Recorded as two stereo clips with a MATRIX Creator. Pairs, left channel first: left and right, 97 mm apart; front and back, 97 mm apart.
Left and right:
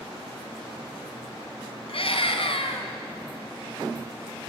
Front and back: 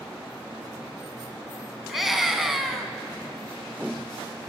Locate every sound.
1.9 s a scream: 95° left, 2.5 m